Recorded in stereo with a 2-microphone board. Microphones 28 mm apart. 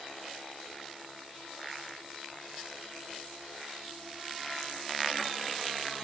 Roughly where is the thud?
I don't hear a thud.